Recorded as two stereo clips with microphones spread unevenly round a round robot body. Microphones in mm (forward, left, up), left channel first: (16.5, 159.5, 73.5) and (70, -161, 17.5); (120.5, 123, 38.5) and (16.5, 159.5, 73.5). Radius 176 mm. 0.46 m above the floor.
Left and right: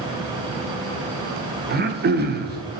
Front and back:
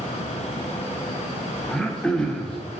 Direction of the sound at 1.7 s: 70° right.